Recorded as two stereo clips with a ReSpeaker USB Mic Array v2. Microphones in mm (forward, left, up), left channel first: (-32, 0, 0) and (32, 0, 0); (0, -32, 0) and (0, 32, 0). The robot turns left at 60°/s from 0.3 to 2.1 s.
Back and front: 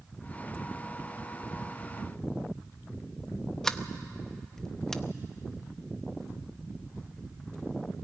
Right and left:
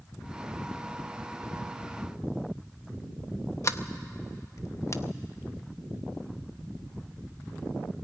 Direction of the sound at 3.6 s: 100° right.